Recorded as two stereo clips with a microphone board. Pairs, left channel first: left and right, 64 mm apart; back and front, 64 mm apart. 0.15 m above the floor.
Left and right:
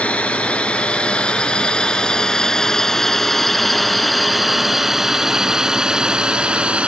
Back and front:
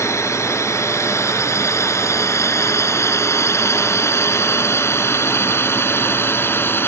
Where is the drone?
155° left; by 6.9 s 150° right.